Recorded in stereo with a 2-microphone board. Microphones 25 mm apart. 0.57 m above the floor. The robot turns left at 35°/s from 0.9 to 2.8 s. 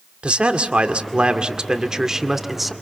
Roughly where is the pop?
I don't hear a pop.